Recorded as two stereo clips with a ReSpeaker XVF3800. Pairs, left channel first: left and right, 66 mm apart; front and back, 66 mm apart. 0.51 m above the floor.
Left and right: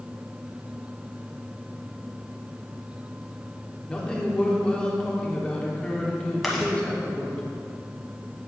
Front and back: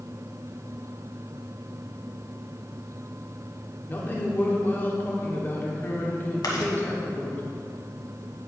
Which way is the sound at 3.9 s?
25° left.